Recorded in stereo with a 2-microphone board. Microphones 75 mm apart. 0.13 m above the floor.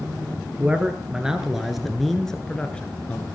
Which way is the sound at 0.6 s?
20° right (ahead or behind).